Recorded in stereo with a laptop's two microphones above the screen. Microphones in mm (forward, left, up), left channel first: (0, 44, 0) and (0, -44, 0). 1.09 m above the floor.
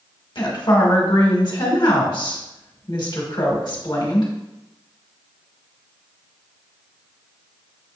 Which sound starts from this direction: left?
A woman speaking, at 0.3 s.